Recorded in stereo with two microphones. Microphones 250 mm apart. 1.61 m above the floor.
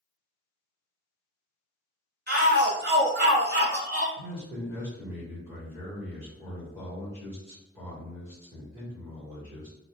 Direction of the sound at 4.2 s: 15° right (ahead or behind).